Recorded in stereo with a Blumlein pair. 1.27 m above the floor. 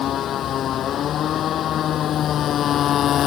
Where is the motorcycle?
30° left.